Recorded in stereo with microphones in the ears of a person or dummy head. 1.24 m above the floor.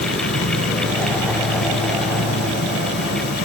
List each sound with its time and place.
0.0 s an insect: 55° left (ahead or behind)